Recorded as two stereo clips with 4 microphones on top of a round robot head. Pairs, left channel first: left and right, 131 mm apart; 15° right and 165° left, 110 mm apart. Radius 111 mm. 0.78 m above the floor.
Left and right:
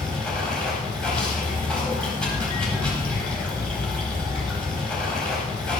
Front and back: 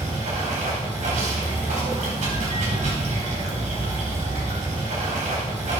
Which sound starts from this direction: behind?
Running water, at 0.0 s.